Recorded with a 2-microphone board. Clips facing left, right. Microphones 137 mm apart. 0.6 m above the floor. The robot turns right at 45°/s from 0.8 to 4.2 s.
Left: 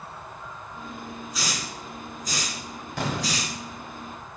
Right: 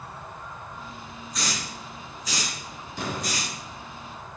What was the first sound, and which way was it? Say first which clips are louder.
A hiss: right 2 dB; centre (ahead or behind).